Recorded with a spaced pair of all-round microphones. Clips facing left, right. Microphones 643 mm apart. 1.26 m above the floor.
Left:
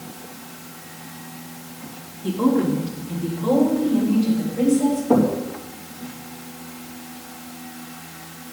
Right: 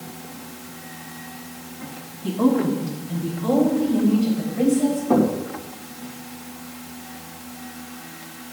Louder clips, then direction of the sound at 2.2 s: Even; 15° right (ahead or behind).